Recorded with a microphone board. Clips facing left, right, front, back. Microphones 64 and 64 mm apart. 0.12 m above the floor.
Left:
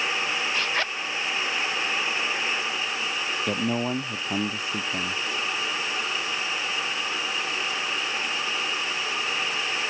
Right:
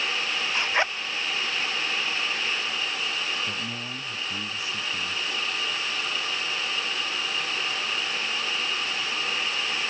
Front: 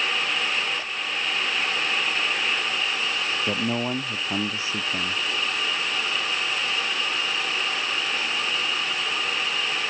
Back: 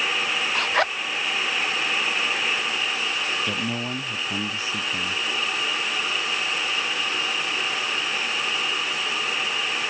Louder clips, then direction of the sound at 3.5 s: Left 8 dB, front 2 dB; 60° left.